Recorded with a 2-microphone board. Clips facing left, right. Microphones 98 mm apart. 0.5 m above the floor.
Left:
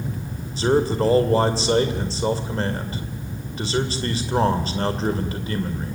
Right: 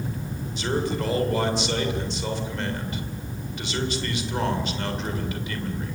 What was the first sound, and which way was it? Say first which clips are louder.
A man speaking: left 7 dB; 40° left (ahead or behind).